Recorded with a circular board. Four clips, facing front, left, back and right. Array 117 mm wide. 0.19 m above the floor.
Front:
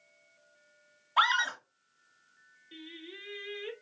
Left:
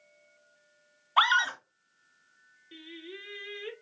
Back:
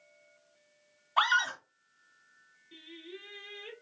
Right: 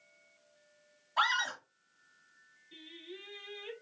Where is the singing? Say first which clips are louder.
Left 5 dB, front 1 dB; 65° left, 3 m.